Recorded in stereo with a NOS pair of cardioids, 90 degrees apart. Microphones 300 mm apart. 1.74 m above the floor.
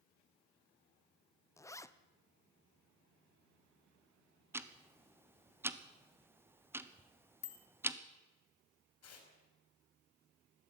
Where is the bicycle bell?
60° left, 2.5 m.